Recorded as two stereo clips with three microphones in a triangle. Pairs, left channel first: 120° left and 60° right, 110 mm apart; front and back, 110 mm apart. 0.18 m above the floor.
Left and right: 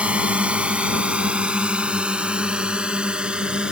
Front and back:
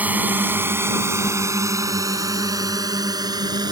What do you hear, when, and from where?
0.0 s a drone: 125° right; by 3.7 s 140° right